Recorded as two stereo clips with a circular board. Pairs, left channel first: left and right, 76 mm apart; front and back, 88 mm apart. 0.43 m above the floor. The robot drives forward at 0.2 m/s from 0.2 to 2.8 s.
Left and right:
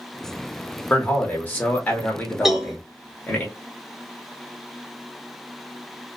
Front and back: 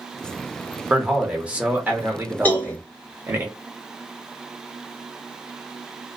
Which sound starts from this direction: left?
A man speaking, at 0.9 s.